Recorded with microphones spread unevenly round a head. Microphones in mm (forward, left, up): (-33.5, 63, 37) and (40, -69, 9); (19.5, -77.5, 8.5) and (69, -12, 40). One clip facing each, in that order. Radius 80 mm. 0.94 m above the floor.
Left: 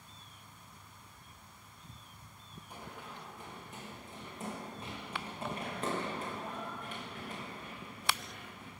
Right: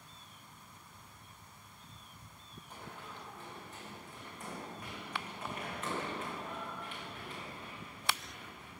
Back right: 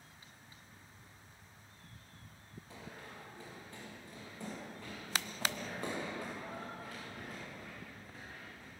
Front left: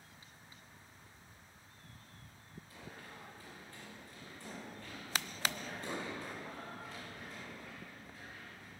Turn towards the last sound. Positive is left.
turn(degrees=160)